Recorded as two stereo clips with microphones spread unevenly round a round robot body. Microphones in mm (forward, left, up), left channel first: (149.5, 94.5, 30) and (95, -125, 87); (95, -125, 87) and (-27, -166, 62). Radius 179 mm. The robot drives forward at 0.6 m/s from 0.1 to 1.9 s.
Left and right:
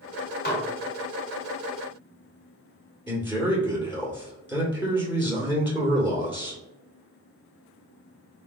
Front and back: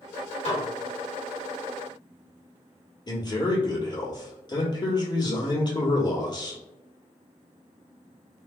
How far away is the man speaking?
About 1.6 m.